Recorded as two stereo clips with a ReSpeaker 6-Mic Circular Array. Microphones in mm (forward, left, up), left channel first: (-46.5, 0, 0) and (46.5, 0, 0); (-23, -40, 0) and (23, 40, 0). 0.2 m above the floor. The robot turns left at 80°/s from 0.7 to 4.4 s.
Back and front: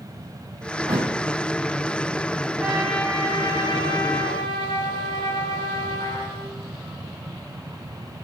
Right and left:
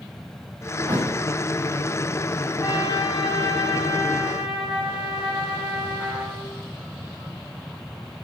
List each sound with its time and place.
0.9 s a thud: 25° left, 4.5 m; by 1.2 s straight ahead, 4.5 m
2.6 s a trumpet: 70° right, 5.5 m; by 6.6 s 145° left, 5.5 m